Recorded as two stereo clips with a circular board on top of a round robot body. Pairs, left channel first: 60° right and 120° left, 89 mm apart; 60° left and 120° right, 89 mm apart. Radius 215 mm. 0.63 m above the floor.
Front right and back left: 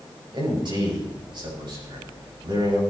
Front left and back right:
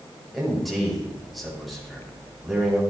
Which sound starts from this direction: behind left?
A man speaking, at 0.3 s.